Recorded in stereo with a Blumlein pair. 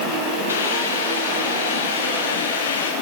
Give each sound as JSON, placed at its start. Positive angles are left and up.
{"t": 0.5, "sound": "a hiss", "azimuth_deg": 65, "distance_m": 7.5}